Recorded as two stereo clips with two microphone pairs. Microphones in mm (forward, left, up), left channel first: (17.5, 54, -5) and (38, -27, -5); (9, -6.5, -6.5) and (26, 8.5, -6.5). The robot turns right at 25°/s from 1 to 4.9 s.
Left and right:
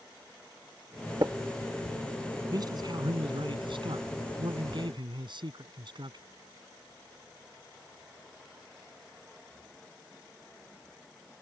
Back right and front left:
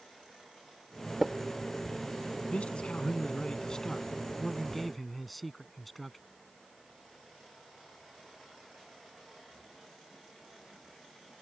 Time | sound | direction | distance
1.2 | tapping | 35° right | ?
2.5 | a man speaking | 115° right | ?